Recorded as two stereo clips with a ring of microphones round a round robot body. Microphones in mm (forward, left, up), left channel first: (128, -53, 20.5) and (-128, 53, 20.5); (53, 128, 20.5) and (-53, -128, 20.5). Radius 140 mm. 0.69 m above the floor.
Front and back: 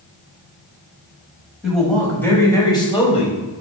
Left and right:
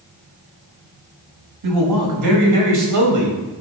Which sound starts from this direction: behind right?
A man speaking, at 1.6 s.